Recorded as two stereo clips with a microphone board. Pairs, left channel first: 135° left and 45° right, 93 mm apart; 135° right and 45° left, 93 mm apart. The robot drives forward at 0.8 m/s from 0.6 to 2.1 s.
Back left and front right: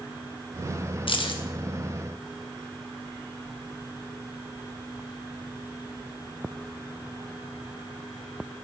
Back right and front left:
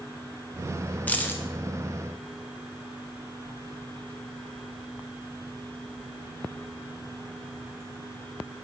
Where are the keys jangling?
155° left, 0.9 m; by 1.4 s 160° left, 1.2 m.